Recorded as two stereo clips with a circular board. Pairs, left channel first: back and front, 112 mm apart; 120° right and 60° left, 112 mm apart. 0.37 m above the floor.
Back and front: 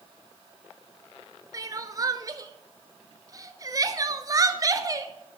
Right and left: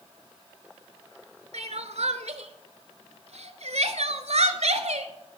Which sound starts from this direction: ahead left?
Crying, at 1.5 s.